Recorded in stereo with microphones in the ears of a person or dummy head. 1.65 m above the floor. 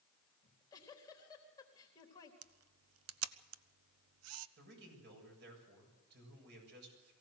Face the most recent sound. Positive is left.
turn(degrees=-60)  # may be behind; listen again after turning